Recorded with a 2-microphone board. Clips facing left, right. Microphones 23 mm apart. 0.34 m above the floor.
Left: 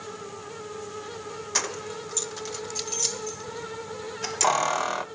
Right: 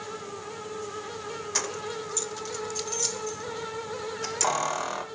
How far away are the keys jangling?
About 0.5 m.